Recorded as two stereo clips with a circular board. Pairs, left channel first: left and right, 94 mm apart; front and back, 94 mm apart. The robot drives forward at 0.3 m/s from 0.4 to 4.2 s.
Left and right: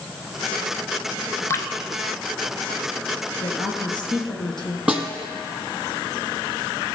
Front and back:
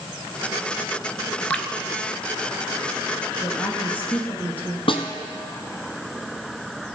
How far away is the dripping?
About 0.7 m.